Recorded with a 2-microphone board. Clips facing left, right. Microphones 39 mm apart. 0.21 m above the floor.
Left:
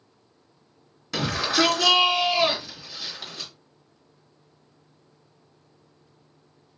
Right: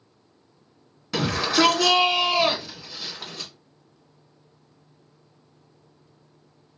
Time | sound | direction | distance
1.1 | a shout | 5° right (ahead or behind) | 2.5 m